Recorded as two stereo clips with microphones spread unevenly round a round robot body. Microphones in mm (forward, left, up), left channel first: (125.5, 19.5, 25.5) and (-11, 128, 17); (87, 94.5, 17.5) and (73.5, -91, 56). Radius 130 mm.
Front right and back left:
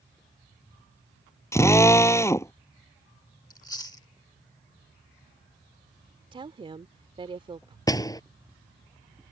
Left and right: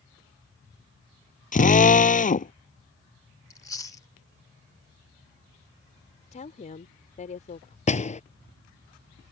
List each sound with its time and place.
1.5 s a drill: 35° left
3.5 s chewing: 30° left
6.3 s a woman speaking: 95° left
7.9 s a door slam: 30° left